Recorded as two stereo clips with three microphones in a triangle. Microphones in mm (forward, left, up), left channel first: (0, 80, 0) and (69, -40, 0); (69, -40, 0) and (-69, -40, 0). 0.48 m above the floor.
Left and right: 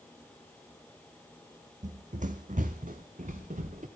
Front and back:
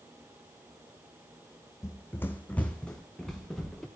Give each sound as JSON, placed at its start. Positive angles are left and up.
{"t": 1.8, "sound": "running footsteps", "azimuth_deg": -65, "distance_m": 0.9}